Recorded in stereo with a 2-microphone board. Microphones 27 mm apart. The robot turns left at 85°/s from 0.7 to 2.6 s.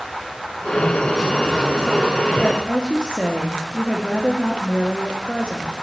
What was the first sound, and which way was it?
A woman speaking, 30° left (ahead or behind).